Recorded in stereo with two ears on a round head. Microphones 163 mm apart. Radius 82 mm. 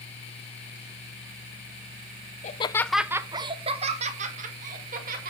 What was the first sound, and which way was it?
Laughter, 40° left (ahead or behind).